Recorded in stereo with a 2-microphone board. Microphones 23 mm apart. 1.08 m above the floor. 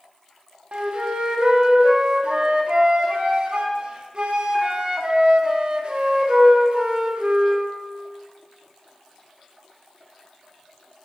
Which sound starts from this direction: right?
A flute, at 0.7 s.